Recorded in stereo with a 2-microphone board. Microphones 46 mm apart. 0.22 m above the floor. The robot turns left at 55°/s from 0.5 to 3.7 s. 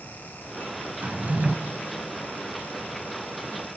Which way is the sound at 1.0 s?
35° right (ahead or behind).